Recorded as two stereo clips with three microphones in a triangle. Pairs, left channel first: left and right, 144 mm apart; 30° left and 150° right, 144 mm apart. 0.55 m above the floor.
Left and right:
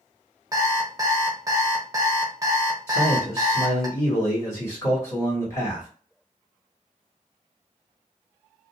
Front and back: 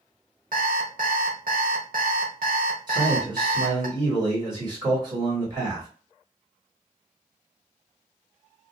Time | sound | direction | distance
0.5 | an alarm clock | 155° right | 0.9 m
2.9 | a man speaking | 155° left | 1.9 m